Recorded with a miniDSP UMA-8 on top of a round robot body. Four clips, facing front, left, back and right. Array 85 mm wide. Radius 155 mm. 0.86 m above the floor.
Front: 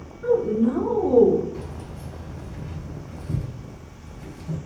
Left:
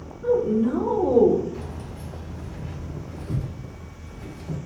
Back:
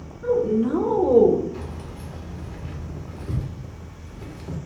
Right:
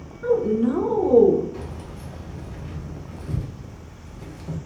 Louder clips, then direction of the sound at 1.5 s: Even, even; 145° right.